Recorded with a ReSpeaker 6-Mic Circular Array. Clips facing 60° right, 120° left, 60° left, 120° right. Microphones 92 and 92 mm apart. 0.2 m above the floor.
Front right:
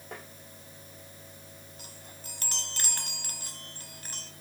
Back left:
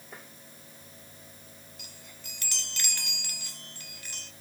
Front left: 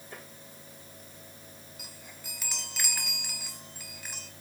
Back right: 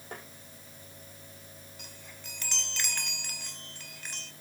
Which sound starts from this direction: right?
Tapping, at 0.1 s.